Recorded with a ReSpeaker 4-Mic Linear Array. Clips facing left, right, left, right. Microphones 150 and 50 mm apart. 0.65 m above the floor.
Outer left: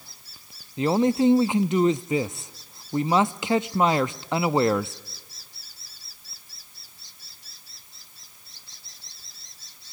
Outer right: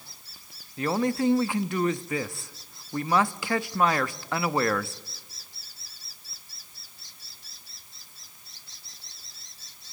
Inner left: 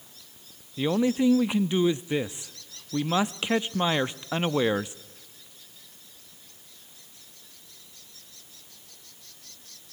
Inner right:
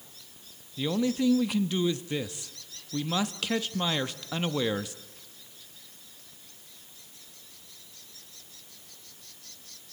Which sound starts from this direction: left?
A man speaking, at 0.8 s.